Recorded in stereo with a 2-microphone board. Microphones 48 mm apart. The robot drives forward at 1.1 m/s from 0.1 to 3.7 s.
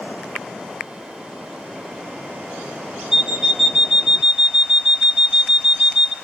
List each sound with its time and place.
3.1 s an alarm clock: 10° right (ahead or behind), 0.6 m; by 6.1 s 5° right (ahead or behind), 1.0 m